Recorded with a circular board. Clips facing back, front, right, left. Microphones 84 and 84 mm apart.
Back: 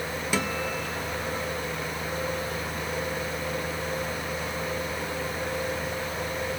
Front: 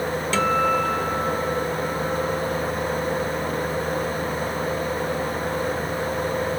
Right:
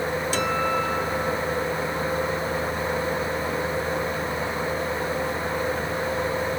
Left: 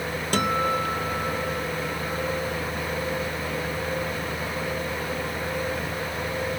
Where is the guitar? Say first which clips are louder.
Front 10 dB, left 2 dB; 105° left, 1.2 m.